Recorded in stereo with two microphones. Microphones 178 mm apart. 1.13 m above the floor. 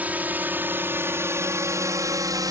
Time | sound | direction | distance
0.0 | a drone | 10° right (ahead or behind) | ?